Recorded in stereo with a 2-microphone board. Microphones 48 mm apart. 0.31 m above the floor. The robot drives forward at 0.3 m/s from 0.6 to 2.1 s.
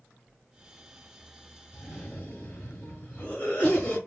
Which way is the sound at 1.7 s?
25° left (ahead or behind).